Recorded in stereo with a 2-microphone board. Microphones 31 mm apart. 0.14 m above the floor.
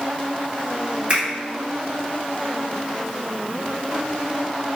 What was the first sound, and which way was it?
A finger snap, 40° right (ahead or behind).